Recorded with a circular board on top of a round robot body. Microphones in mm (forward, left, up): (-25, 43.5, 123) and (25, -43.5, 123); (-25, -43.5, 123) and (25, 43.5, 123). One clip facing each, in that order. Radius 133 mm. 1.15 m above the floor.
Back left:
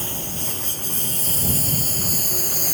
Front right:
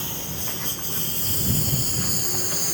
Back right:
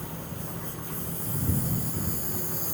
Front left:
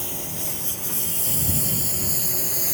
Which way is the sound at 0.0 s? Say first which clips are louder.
Back left 3 dB, front left 3 dB; 70° left.